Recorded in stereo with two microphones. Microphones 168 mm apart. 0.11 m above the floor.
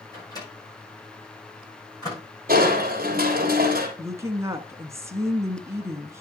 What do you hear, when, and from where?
0.1 s a microwave: 20° left (ahead or behind), 8 m
2.5 s crushing: 55° right (ahead or behind), 3 m
4.0 s a woman speaking: 15° right (ahead or behind), 1.2 m